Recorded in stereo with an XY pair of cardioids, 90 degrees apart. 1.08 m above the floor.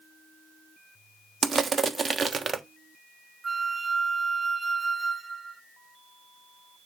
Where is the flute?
25° right, 0.8 m.